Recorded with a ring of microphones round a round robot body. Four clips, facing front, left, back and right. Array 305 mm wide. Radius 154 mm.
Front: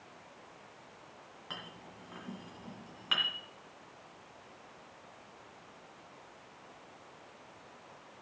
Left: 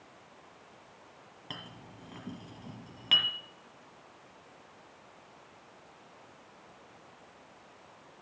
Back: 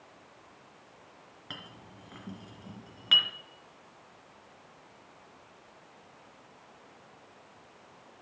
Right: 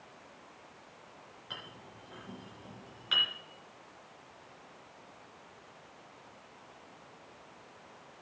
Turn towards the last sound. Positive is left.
turn(degrees=120)